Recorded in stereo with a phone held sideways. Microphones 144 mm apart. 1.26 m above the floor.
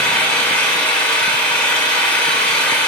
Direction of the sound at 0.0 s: 10° left (ahead or behind).